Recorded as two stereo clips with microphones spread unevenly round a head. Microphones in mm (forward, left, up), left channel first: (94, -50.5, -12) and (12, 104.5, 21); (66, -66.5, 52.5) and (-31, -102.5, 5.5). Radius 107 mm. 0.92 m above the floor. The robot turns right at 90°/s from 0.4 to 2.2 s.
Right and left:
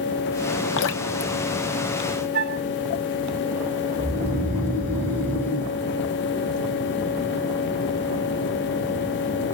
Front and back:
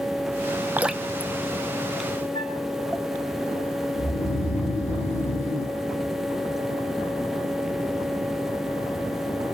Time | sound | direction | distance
0.8 | dripping | 75° right | 0.5 m
2.3 | a flute | 90° left | 3 m
4.0 | snoring | 20° left | 5 m